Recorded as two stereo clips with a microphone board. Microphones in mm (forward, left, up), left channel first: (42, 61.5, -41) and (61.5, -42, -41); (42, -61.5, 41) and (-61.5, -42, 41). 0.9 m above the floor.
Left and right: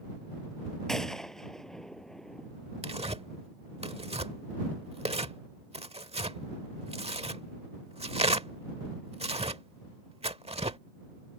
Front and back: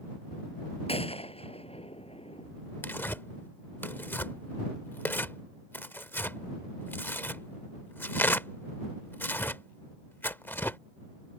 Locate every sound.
0.9 s a gunshot: 15° left
2.8 s tearing paper: 80° right